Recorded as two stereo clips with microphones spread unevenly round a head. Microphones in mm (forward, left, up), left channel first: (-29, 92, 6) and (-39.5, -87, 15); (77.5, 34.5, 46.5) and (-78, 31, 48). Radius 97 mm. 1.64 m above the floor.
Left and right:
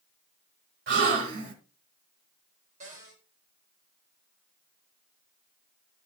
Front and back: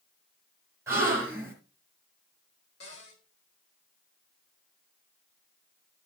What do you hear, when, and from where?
0.9 s a gasp: 100° right, 2.5 m
2.8 s a cupboard door: 35° right, 4.5 m